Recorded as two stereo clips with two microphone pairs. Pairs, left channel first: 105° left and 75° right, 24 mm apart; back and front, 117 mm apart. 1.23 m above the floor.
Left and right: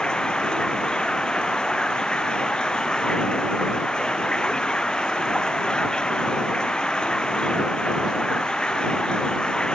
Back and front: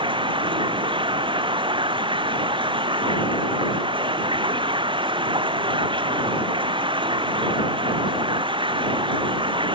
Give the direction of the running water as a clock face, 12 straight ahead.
10 o'clock.